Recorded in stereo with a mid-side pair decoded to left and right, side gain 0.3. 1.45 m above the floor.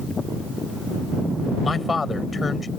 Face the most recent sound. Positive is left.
turn(degrees=45)